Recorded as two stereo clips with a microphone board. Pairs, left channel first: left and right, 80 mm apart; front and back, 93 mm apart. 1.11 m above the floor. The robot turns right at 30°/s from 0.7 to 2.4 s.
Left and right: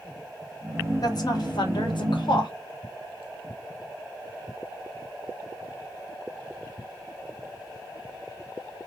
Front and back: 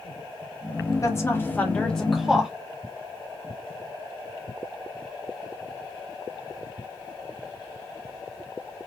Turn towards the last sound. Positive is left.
turn(degrees=95)